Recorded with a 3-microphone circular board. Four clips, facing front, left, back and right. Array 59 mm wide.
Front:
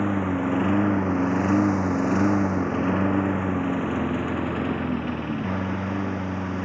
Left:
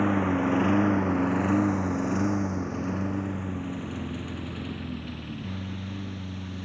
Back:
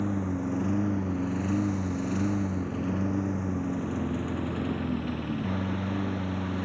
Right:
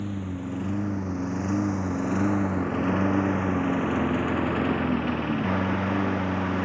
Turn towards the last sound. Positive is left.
turn(degrees=-70)